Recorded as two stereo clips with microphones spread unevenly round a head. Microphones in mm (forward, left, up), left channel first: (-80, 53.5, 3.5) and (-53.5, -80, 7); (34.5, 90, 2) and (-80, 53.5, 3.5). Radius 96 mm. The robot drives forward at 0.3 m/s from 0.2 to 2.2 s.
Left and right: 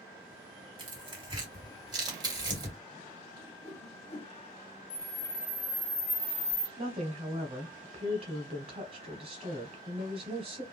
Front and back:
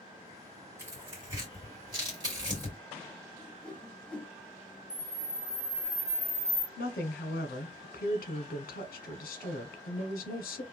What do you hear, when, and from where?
0.8 s tearing paper: 100° right, 1.7 m; by 2.8 s 120° right, 1.8 m
3.3 s a whoosh: 100° left, 0.7 m
4.9 s a camera shutter: 150° left, 1.4 m
6.8 s a woman speaking: 15° right, 0.5 m